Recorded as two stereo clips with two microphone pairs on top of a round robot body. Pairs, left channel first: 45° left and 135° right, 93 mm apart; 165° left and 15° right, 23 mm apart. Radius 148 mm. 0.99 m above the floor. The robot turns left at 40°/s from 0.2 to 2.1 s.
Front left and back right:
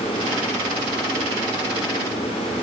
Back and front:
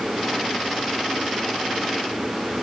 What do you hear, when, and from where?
Only background noise.